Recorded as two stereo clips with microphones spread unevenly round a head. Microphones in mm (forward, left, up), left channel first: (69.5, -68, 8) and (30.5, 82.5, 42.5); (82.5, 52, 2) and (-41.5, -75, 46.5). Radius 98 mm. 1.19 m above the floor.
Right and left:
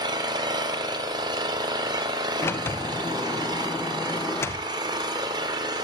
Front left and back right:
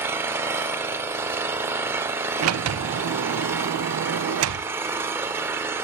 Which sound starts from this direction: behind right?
A sliding door, at 2.4 s.